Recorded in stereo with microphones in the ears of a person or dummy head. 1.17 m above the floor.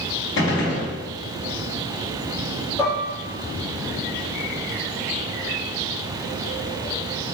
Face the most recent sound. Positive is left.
turn(degrees=20)  # may be behind; listen again after turning